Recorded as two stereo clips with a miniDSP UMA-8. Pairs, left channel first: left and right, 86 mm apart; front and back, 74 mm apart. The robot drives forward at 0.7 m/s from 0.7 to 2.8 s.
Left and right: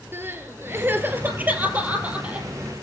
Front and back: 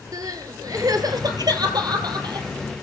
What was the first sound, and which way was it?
Crying, 150° right.